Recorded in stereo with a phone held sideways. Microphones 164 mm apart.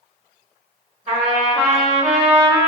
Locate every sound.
1.1 s a trumpet: 45° right (ahead or behind), 1.6 m